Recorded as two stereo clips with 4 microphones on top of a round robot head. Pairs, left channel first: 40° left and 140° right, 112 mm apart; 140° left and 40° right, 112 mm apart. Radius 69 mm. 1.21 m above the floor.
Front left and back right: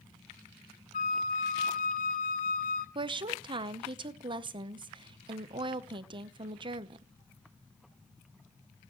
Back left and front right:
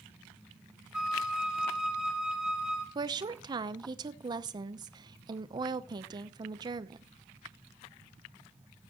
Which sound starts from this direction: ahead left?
A flute, at 0.9 s.